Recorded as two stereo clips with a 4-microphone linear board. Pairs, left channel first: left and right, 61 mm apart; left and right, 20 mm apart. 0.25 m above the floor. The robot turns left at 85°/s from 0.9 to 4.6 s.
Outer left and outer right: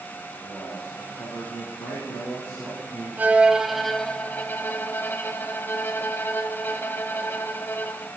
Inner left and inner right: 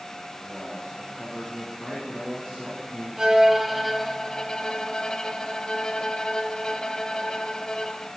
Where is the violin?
130° right, 0.9 m; by 8.1 s 110° left, 0.9 m.